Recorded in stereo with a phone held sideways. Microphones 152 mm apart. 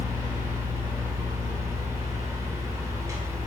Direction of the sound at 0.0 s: 20° right (ahead or behind).